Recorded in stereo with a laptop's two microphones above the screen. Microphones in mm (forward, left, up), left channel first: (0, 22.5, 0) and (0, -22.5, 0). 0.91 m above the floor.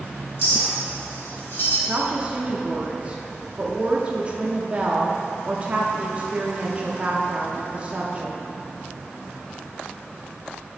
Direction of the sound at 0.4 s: 55° left (ahead or behind).